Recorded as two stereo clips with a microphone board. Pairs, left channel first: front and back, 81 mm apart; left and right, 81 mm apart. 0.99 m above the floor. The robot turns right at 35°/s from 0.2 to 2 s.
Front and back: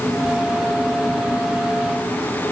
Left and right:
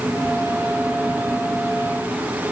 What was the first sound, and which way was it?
Only background noise.